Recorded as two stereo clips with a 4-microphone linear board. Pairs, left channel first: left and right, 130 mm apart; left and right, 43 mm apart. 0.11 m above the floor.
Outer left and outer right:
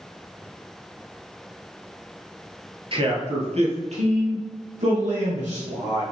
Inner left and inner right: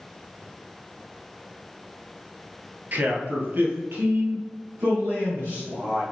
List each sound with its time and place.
2.9 s a man speaking: 45° right (ahead or behind), 1.9 m; by 6.0 s 60° right (ahead or behind), 4.5 m